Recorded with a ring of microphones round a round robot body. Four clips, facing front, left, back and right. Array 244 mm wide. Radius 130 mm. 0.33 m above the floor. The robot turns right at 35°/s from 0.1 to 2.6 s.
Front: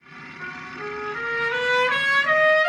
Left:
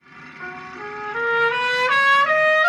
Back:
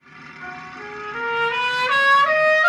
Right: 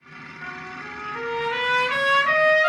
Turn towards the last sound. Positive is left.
turn(degrees=150)